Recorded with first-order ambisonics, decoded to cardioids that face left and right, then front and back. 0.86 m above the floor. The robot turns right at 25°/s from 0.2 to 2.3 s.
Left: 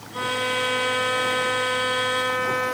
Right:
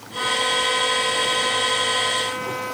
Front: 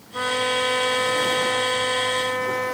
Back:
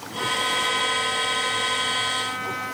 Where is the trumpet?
30° left, 3 m; by 2.7 s 85° left, 3 m.